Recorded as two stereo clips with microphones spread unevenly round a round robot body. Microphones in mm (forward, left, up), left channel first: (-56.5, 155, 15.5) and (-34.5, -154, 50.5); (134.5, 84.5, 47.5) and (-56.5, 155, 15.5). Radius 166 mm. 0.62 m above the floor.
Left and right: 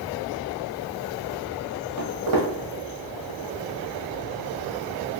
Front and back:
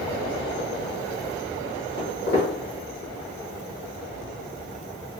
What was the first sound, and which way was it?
Footsteps, 60° right.